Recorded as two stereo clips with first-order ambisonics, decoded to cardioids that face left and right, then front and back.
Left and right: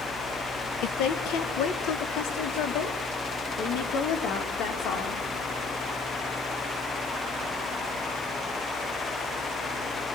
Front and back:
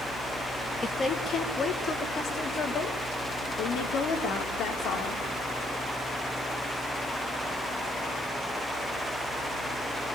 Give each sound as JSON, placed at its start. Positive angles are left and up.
{"t": 0.8, "sound": "a woman speaking", "azimuth_deg": 75, "distance_m": 2.0}